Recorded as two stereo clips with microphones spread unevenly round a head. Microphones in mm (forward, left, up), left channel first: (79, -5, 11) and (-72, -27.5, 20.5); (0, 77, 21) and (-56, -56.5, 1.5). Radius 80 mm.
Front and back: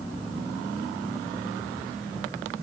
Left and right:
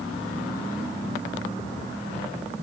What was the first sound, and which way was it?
Only background noise.